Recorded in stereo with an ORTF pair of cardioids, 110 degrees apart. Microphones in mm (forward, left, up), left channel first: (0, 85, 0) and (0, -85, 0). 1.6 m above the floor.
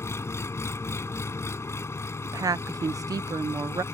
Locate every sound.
0.0 s an engine running: 15° left
2.2 s a woman speaking: 20° right